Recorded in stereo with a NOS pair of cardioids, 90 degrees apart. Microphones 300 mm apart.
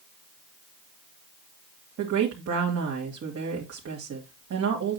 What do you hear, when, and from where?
2.0 s a woman speaking: 55° right, 2.5 m